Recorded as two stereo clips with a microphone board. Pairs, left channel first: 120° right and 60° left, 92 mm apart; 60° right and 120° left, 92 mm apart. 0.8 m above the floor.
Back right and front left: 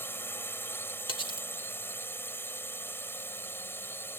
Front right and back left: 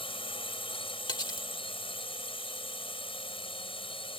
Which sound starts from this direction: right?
Cutlery clinking, at 1.1 s.